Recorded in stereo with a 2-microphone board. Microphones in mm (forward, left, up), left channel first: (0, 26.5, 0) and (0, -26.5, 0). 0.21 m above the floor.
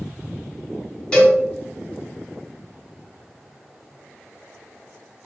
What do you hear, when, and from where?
1.1 s a cowbell: 20° left (ahead or behind), 1.8 m